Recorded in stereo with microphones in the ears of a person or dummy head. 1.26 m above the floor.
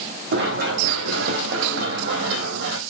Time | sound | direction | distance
0.3 | running footsteps | 65° right (ahead or behind) | 4.5 m